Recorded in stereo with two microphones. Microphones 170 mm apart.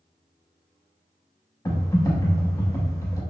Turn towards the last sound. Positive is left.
turn(degrees=20)  # may be behind; listen again after turning